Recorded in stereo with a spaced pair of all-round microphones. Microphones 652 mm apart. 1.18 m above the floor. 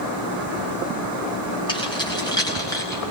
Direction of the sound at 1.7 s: 5° left (ahead or behind).